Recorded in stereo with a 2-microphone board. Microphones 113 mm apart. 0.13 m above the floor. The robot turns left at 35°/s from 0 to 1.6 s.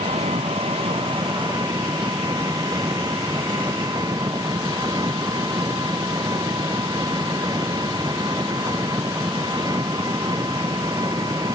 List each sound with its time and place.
0.0 s an engine running: 85° right; by 11.6 s 140° right